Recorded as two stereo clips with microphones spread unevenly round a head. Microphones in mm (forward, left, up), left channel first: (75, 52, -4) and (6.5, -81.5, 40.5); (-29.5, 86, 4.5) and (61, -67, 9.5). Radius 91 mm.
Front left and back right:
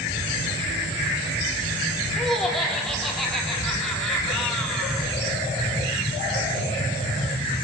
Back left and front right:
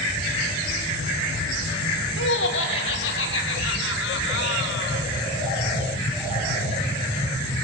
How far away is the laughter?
About 4.5 m.